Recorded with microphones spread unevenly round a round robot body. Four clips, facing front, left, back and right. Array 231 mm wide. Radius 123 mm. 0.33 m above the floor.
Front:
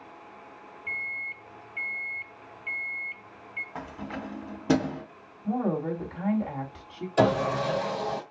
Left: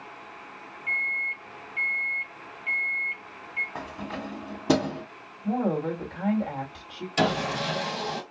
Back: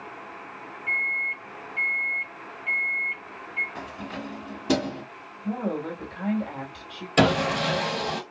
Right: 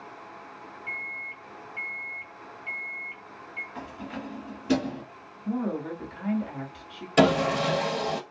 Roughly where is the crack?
I don't hear a crack.